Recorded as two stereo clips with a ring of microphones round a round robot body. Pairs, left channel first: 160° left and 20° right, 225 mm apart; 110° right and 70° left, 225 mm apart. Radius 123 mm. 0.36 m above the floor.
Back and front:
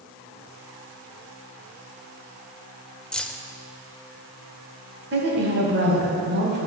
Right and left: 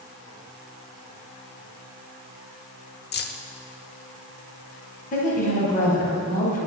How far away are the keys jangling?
About 0.8 m.